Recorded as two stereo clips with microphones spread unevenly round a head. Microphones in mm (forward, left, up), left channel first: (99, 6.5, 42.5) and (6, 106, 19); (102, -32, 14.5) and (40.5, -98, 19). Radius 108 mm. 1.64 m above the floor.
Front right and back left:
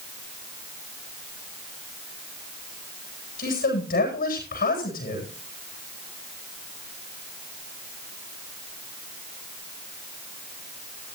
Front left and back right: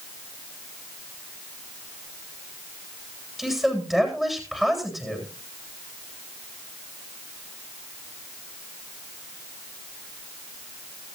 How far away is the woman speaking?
About 9.5 m.